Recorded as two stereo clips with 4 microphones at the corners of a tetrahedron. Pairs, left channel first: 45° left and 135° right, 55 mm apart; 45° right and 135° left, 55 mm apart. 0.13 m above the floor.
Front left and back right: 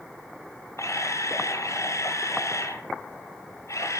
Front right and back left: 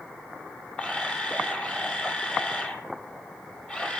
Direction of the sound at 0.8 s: 25° left.